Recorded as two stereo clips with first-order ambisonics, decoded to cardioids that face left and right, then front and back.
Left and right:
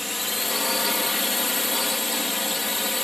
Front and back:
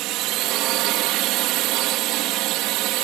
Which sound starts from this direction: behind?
A drone, at 0.0 s.